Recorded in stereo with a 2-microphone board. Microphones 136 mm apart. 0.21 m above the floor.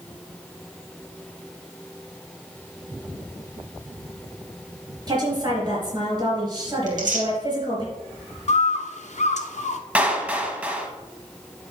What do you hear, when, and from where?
5.1 s a woman speaking: 35° right (ahead or behind), 4 m
6.9 s tearing paper: 75° right (ahead or behind), 2.5 m
8.5 s a bird: 65° left (ahead or behind), 0.7 m
9.9 s a clap: 10° right (ahead or behind), 1.0 m